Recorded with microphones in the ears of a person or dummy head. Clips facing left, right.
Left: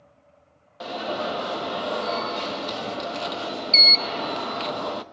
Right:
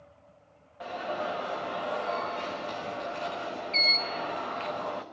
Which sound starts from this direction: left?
An alarm, at 0.8 s.